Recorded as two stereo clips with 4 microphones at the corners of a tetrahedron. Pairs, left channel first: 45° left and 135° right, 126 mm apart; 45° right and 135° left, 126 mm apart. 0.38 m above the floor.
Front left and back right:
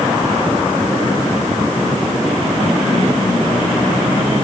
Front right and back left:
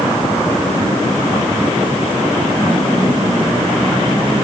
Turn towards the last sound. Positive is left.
No sound to turn to.